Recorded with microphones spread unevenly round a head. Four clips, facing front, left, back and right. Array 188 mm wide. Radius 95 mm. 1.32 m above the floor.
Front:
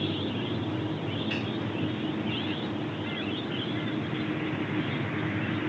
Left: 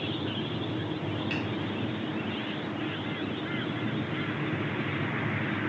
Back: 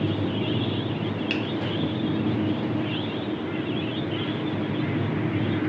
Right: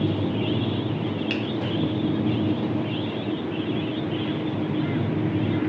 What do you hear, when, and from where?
1.3 s a finger snap: 135° right, 1.6 m